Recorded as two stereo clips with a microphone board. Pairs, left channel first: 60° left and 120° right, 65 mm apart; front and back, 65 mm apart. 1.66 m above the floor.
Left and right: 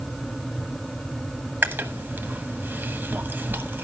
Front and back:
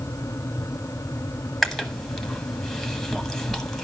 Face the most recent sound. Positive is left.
turn(degrees=-95)